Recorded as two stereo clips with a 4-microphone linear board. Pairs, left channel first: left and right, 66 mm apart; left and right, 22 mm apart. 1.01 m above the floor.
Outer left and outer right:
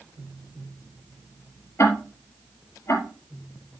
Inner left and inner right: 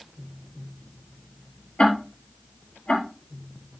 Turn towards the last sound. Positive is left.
turn(degrees=45)  # may be behind; listen again after turning